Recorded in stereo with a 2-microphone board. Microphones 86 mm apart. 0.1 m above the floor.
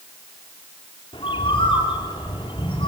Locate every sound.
1.1 s a bird: 80° left, 8 m